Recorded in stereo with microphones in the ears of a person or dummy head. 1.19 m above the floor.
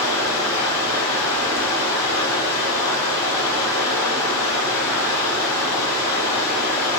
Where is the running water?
20° left (ahead or behind), 1.6 m.